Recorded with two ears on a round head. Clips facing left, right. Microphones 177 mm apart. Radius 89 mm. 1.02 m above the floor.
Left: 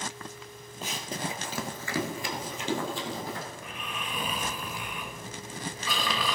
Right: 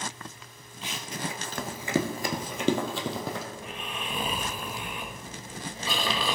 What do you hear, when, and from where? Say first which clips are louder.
0.8 s running footsteps: left 1 dB; 40° left (ahead or behind), 1.7 m; by 3.4 s 60° right (ahead or behind), 2.5 m
3.5 s snoring: right 2 dB; 25° right (ahead or behind), 1.1 m